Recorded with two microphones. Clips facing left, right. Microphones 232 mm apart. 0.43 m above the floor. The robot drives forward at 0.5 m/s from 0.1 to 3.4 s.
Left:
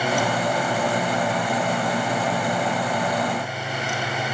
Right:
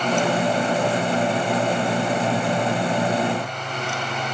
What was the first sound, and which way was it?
Only background noise.